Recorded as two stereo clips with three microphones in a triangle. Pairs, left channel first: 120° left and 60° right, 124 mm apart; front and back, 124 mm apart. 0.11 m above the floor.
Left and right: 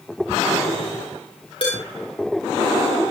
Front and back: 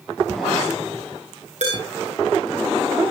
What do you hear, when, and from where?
1.6 s dishes clattering: 160° left, 8 m